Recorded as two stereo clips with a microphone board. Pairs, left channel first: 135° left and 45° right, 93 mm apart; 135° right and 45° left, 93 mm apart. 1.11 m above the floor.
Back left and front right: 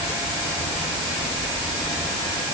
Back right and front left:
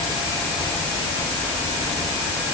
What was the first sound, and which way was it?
Only background noise.